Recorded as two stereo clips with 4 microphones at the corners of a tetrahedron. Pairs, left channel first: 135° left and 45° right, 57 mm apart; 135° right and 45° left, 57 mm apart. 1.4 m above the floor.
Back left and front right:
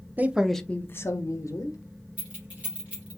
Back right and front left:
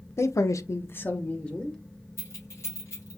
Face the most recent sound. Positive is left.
turn(degrees=-110)